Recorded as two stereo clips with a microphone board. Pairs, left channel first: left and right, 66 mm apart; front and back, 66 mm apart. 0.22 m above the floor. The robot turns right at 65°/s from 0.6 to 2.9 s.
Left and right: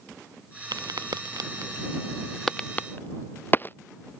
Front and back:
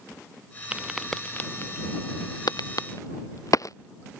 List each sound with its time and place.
0.7 s a crack: 110° right; by 3.8 s 35° left